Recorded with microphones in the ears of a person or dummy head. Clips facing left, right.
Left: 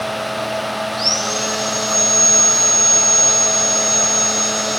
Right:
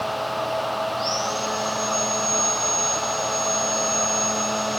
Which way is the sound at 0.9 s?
75° left (ahead or behind).